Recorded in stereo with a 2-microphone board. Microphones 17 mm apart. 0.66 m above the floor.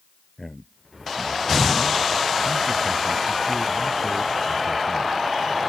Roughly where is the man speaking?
Left.